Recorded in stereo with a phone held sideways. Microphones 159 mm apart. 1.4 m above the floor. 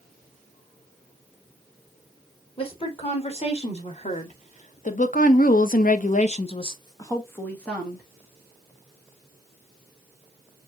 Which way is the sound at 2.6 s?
35° left (ahead or behind).